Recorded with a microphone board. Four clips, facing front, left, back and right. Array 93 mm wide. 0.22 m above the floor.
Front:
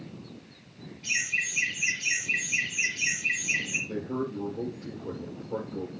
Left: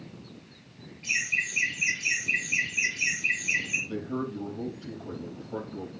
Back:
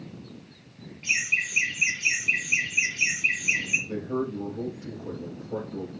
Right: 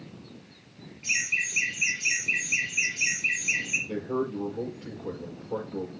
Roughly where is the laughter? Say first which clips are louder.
Even, back 3 dB; behind.